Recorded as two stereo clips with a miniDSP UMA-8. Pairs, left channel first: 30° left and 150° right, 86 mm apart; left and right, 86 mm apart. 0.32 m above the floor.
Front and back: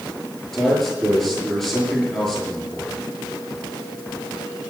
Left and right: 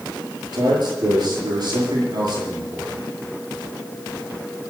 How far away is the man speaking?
About 7 m.